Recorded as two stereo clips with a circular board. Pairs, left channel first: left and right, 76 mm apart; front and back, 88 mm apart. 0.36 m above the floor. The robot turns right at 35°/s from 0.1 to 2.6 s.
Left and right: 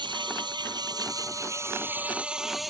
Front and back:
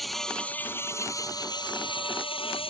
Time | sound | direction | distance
0.0 | an insect | 90° right | ?